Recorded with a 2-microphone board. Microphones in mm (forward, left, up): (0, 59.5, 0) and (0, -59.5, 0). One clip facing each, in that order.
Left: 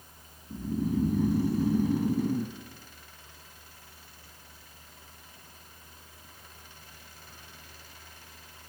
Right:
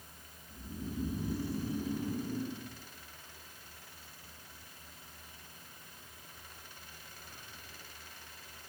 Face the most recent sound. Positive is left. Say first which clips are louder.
# left 12 dB
turn(degrees=75)  # may be behind; listen again after turning